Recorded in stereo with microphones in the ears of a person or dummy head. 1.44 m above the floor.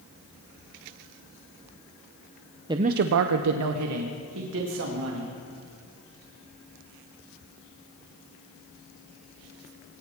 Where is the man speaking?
15° right (ahead or behind), 0.6 m; by 5.4 s 60° right (ahead or behind), 3 m.